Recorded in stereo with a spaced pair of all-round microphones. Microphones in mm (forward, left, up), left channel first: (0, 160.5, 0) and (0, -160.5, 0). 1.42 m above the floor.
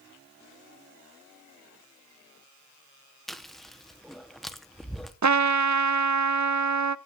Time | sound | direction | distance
3.3 | chewing | centre (ahead or behind) | 0.9 m
5.2 | a trumpet | 60° right (ahead or behind) | 0.5 m